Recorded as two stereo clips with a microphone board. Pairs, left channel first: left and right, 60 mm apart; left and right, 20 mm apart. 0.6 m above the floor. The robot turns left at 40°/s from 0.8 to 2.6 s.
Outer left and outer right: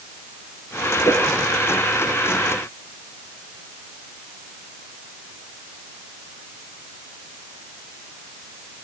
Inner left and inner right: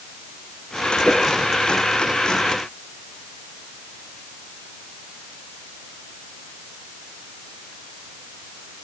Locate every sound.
1.0 s a whoosh: 85° left, 4 m; by 1.3 s 80° left, 4 m